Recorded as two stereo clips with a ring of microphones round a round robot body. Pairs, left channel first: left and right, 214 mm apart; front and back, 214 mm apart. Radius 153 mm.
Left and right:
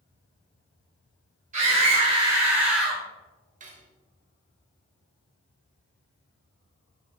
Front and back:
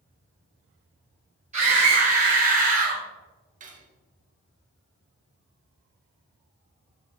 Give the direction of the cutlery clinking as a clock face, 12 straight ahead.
5 o'clock.